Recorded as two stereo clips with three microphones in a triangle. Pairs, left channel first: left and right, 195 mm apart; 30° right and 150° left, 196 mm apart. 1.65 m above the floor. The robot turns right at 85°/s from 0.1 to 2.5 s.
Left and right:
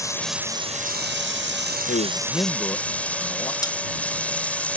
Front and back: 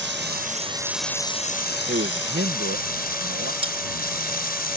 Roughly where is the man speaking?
Left.